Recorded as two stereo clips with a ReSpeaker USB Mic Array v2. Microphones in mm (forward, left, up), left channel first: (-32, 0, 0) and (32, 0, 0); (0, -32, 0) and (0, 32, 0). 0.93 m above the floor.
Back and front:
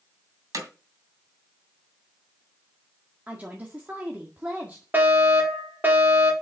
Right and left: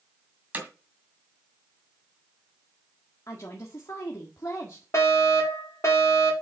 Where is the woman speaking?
65° right, 1.7 m.